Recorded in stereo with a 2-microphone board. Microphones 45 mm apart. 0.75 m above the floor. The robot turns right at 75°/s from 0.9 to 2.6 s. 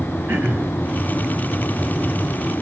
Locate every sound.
0.3 s throat clearing: 45° right (ahead or behind), 4.5 m